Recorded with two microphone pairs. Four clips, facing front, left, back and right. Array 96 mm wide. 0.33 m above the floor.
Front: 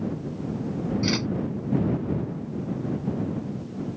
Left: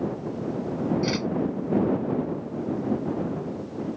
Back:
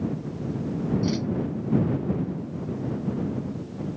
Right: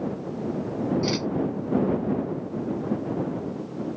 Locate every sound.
1.0 s a whoosh: 25° left